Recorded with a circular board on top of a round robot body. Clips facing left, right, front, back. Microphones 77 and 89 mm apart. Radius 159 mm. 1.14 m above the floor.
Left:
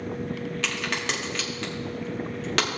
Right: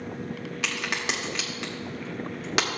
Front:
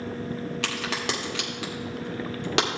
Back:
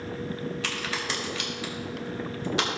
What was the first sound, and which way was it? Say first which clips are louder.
A crack: right 1 dB, front 2 dB; 15° right.